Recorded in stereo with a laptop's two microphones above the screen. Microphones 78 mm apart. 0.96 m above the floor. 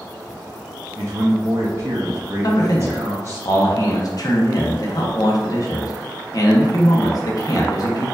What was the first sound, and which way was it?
A man speaking, 35° right (ahead or behind).